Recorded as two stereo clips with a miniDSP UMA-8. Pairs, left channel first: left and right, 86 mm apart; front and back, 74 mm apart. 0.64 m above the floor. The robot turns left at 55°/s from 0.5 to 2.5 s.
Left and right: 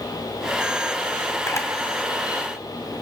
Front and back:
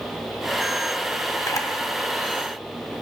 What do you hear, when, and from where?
1.5 s a camera shutter: 45° left, 2.0 m; by 1.7 s 30° left, 2.0 m